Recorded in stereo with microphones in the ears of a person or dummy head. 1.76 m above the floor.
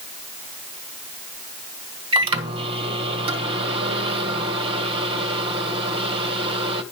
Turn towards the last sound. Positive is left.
turn(degrees=-30)  # may be behind; listen again after turning